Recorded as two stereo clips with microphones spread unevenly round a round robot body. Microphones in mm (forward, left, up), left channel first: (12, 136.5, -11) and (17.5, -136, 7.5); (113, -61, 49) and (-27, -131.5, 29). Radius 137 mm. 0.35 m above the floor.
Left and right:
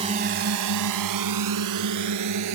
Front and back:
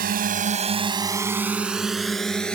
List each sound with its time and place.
0.0 s a drone: 160° right; by 2.6 s 60° right